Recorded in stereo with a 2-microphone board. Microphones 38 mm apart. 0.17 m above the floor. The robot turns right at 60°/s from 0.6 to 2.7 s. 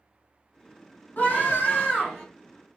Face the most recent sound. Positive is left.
turn(degrees=-165)